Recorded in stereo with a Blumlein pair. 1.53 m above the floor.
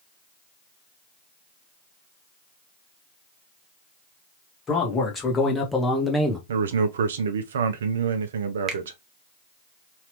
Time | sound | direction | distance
4.7 | a man speaking | 20° left | 1.6 m
6.5 | a man speaking | 65° right | 0.6 m
8.7 | a finger snap | 30° right | 0.8 m